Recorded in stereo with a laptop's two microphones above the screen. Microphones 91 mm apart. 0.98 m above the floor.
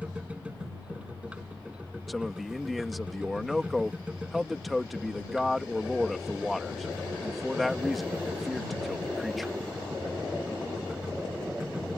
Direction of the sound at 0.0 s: 10° right (ahead or behind).